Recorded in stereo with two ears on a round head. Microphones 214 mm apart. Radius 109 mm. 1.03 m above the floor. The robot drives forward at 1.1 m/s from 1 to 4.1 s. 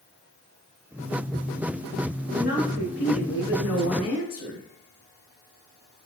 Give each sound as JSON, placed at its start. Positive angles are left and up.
{"t": 2.3, "sound": "a woman speaking", "side_deg": 35, "distance_m": 1.7}